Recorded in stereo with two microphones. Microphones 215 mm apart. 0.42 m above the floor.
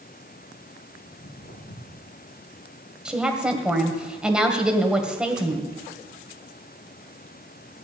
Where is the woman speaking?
5° right (ahead or behind), 1.8 m.